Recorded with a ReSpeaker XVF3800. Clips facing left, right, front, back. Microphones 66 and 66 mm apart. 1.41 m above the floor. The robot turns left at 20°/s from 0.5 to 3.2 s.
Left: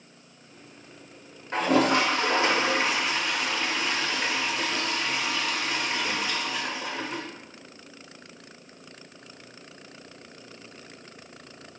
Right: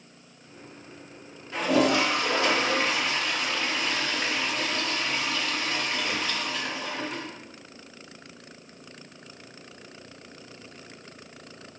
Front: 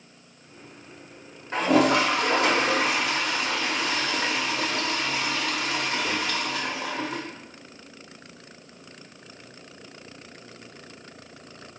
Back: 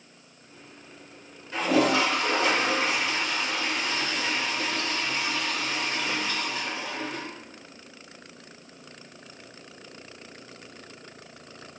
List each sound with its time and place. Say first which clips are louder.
1.5 s a toilet flushing: left 1 dB, front 3 dB; 45° left, 0.6 m; by 7.2 s 10° left, 0.6 m